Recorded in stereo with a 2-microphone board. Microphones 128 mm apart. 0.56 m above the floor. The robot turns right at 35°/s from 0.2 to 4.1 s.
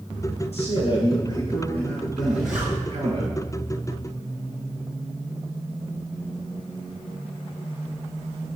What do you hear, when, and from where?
0.5 s a man speaking: 120° left, 6.5 m; by 3.2 s 150° right, 6.5 m
2.2 s a zipper: 5° left (ahead or behind), 7.5 m; by 2.8 s 15° right (ahead or behind), 7.5 m